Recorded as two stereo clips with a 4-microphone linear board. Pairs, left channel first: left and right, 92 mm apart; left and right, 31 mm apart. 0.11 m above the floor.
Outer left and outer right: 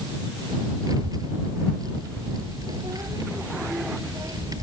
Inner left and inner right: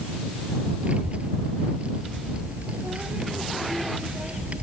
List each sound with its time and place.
0.8 s a child speaking: 45° right (ahead or behind)